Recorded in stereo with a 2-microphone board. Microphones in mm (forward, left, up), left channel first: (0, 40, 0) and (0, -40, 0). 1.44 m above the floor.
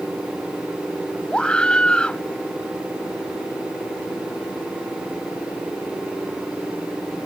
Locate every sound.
1.3 s a scream: 10° left (ahead or behind)